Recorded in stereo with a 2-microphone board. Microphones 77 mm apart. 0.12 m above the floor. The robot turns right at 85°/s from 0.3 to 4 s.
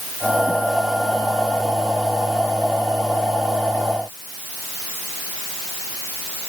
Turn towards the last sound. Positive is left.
No sound to turn to.